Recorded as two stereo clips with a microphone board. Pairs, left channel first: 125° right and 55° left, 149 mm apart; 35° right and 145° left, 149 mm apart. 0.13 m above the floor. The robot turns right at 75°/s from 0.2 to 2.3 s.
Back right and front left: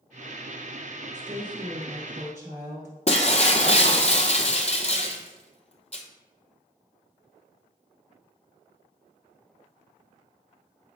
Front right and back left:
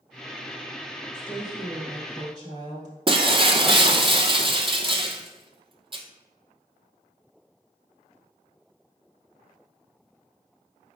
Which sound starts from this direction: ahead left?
A woman speaking, at 1.1 s.